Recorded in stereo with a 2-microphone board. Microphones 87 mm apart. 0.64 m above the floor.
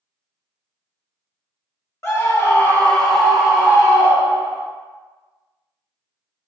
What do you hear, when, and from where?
2.0 s a scream: 35° left (ahead or behind), 0.9 m; by 4.6 s 30° right (ahead or behind), 1.0 m